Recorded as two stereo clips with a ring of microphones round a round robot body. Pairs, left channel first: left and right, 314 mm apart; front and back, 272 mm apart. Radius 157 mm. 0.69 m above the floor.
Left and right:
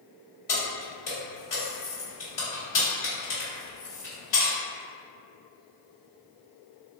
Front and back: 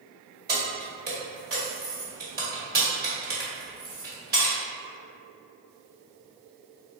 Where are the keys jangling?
120° left, 1.6 m.